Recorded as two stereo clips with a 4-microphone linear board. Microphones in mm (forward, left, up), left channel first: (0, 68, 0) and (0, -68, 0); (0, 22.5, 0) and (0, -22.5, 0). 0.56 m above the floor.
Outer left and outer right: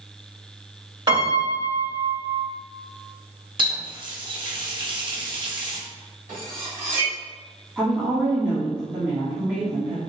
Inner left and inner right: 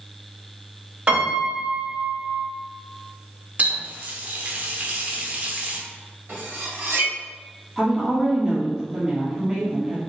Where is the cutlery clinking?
75° right (ahead or behind), 1.9 m.